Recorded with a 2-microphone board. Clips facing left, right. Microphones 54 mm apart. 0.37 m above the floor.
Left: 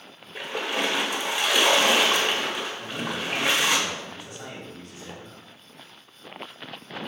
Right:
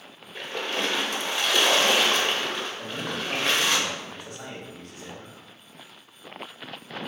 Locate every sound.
0.3 s a splash: 10° left (ahead or behind), 0.7 m
2.8 s a man speaking: 45° right (ahead or behind), 2 m